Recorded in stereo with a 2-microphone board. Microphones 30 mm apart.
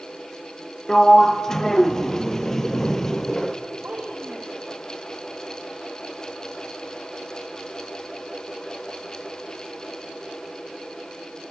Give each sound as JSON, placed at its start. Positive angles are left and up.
{"t": 0.9, "sound": "a sliding door", "side_deg": 15, "distance_m": 1.2}
{"t": 3.8, "sound": "a child speaking", "side_deg": -70, "distance_m": 4.0}